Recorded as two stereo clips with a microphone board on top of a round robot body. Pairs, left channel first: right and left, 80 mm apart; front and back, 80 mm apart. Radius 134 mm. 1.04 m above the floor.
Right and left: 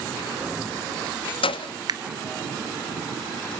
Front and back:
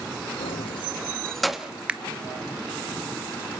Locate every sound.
0.4 s keys jangling: 15° left, 0.8 m; by 1.7 s 100° right, 1.3 m
1.9 s a finger snap: 105° left, 0.9 m